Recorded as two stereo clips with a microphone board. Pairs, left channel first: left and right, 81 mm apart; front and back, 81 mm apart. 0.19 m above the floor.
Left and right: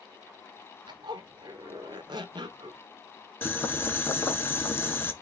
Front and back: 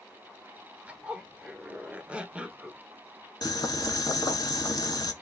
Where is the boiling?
30° left, 0.7 m.